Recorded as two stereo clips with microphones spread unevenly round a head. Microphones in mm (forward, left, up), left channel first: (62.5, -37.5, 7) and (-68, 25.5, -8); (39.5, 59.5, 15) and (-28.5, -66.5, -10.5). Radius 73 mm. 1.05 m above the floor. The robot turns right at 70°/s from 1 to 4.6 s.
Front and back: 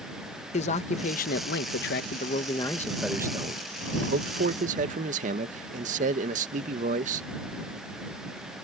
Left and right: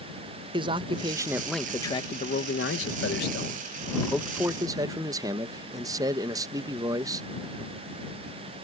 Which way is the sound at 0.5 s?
70° right.